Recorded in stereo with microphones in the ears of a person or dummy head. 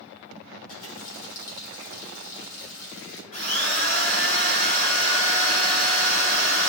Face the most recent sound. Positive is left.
turn(degrees=40)  # may be behind; listen again after turning